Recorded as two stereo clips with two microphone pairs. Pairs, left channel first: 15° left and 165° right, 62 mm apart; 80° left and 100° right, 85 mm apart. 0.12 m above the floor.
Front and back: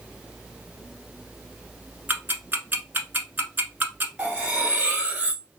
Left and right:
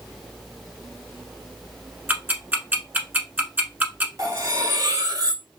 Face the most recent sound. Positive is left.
turn(degrees=-100)